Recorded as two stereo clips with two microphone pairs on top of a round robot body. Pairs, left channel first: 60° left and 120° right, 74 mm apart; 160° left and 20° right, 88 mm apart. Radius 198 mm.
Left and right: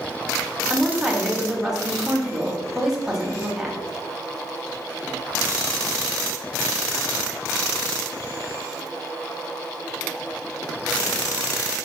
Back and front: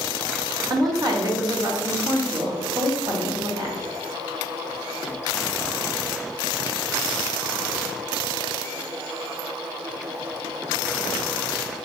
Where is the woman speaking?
50° right, 1.0 m.